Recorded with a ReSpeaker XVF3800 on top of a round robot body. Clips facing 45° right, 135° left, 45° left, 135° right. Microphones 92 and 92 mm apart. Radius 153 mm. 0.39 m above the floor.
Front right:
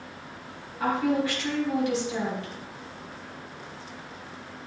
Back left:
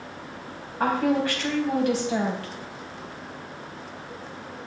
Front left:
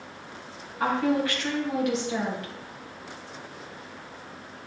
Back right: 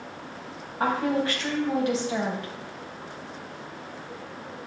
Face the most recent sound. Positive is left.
turn(degrees=170)